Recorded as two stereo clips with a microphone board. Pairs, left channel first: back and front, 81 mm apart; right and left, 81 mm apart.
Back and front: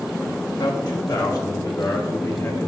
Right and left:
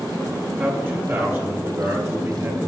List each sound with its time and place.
0.6 s a man speaking: 160° left, 1.5 m; by 2.7 s 130° left, 4 m